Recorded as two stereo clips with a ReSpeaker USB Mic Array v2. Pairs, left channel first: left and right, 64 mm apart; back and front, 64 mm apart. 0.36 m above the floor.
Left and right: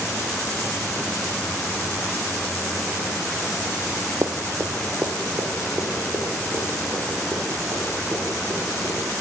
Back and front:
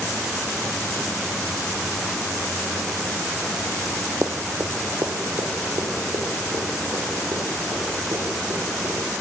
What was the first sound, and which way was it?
Running footsteps, 55° right.